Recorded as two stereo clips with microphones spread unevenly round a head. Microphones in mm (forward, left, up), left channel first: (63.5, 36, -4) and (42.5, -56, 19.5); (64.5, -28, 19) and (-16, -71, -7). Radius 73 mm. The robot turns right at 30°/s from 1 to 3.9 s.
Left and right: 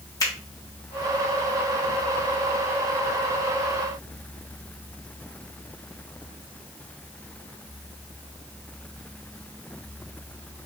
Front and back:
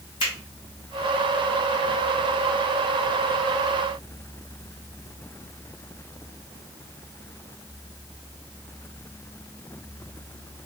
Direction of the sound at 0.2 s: 20° left.